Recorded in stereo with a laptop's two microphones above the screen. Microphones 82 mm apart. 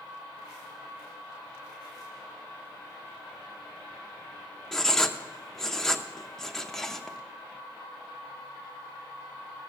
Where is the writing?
5° left (ahead or behind), 0.6 m.